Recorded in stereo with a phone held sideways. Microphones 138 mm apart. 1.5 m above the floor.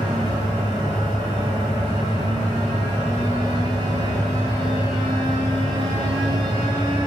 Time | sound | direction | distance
0.0 | a fan | 35° right (ahead or behind) | 3.5 m